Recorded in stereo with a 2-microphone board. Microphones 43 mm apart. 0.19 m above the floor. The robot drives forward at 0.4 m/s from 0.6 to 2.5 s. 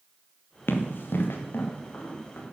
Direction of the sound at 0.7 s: 60° left (ahead or behind).